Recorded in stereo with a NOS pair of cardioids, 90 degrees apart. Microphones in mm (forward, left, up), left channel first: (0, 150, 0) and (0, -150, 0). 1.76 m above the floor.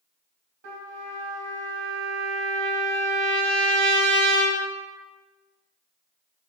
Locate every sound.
0.6 s a trumpet: 70° right, 1.7 m